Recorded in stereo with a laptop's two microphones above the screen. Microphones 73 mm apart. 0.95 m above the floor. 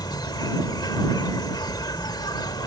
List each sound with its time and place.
0.0 s an insect: 70° left (ahead or behind)